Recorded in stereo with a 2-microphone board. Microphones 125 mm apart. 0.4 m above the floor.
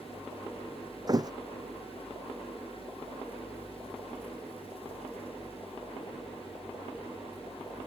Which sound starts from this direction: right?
A thud, at 1.1 s.